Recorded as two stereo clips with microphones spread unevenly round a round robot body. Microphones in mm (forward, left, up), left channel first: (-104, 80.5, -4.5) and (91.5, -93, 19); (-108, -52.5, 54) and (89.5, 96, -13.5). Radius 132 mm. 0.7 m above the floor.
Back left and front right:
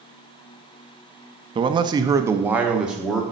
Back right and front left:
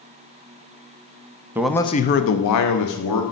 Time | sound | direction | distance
1.6 | a man speaking | 20° left | 0.5 m